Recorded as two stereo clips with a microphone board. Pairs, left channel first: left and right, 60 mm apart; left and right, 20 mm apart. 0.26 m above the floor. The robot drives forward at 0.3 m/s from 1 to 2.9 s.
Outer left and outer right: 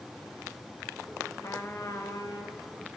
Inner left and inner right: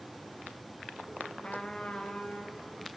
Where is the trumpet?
60° left (ahead or behind), 1.1 m; by 2.6 s 45° left (ahead or behind), 1.3 m.